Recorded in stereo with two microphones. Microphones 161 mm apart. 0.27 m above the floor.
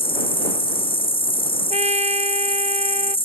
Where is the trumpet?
45° right (ahead or behind).